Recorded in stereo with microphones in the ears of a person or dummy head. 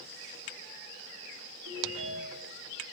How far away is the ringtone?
About 7.5 m.